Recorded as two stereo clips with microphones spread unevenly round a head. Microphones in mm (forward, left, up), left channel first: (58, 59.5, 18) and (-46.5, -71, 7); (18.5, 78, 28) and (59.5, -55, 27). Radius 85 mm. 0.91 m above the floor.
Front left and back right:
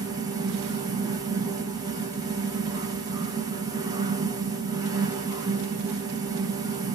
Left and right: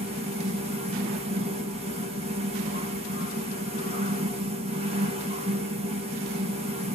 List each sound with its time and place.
0.0 s a fan: 75° right, 1.0 m